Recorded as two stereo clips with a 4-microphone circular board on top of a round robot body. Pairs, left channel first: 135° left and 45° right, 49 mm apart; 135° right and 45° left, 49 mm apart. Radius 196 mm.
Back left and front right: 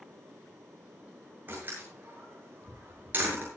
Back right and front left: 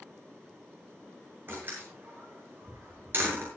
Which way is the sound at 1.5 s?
Straight ahead.